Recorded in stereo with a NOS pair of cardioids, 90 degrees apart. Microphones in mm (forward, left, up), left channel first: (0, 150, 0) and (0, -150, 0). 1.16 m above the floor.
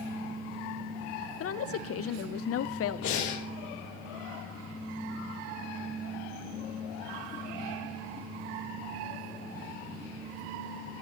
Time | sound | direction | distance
1.4 | a woman speaking | 50° left | 0.6 m
3.0 | breathing | 70° left | 3 m